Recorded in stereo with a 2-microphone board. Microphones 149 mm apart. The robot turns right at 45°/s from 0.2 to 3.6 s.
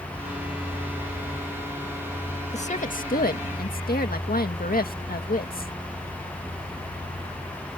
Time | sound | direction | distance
2.5 | a woman speaking | 50° left | ?